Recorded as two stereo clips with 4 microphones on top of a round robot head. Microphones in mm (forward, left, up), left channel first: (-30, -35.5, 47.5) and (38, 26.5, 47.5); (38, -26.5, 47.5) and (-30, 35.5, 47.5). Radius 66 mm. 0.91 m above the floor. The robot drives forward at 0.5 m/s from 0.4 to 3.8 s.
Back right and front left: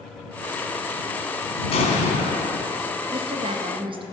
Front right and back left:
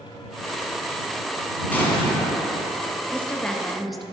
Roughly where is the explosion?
Behind right.